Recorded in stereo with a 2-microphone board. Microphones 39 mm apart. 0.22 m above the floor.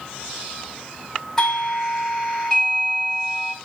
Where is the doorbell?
15° left (ahead or behind), 1.9 m.